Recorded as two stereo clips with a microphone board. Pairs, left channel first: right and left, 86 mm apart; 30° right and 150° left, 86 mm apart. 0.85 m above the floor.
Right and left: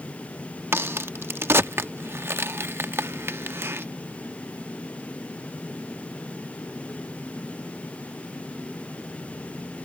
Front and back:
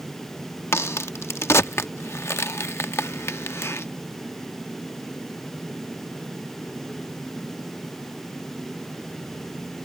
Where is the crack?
30° left.